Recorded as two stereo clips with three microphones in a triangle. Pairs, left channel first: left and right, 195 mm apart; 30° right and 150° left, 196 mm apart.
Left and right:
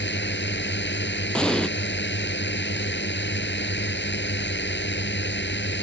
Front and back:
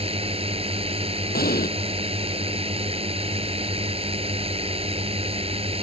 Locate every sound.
0.0 s a drone: 95° left
1.3 s an explosion: 5° left